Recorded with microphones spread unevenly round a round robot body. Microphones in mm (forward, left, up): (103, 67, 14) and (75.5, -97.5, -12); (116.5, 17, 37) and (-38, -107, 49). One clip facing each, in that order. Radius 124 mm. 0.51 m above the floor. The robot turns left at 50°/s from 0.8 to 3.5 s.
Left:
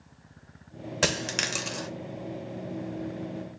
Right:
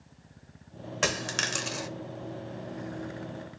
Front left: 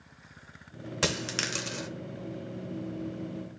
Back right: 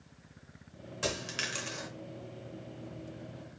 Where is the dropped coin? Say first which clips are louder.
Left 2 dB, front left 4 dB; 25° left, 0.6 m; by 1.9 s 20° right, 0.6 m.